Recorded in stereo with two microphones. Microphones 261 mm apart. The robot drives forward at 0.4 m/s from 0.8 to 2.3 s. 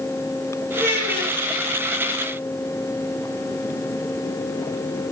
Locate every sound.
0.8 s a child speaking: 40° right (ahead or behind), 3.5 m